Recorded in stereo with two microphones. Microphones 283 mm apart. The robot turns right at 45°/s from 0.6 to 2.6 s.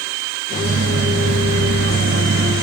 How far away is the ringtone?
No ringtone in this recording.